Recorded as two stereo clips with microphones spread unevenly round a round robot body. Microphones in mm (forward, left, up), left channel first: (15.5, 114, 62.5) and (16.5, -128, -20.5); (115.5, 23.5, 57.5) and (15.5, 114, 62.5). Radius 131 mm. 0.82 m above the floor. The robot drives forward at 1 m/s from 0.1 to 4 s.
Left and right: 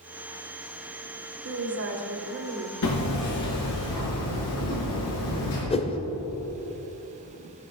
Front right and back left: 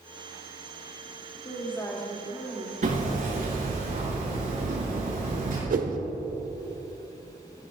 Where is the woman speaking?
105° right, 2 m; by 2.7 s 135° right, 3 m.